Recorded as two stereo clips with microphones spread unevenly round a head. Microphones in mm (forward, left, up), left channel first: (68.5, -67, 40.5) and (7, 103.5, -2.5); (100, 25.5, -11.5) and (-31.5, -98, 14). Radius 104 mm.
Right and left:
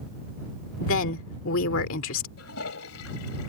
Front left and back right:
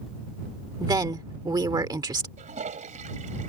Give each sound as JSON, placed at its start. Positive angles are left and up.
{"t": 0.8, "sound": "a woman speaking", "azimuth_deg": -70}
{"t": 2.4, "sound": "a toilet flushing", "azimuth_deg": -90}